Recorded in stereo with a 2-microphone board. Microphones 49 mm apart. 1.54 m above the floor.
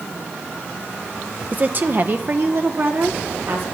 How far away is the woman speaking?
About 0.9 m.